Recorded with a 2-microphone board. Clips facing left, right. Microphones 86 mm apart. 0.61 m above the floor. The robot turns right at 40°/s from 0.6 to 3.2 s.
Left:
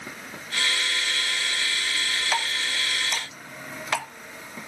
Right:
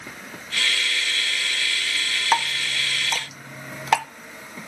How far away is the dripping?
About 0.7 m.